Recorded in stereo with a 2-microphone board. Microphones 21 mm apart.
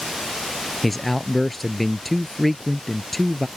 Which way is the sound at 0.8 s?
5° left (ahead or behind).